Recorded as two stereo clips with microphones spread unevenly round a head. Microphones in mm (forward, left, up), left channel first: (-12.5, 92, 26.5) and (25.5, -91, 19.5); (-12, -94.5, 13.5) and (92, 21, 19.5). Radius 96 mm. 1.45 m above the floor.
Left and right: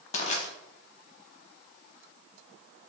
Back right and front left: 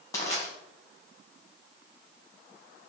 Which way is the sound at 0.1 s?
155° left.